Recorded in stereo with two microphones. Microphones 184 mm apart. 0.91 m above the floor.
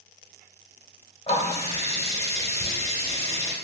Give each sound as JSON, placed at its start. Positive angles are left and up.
{"t": 1.3, "sound": "a running tap", "side_deg": 35, "distance_m": 0.8}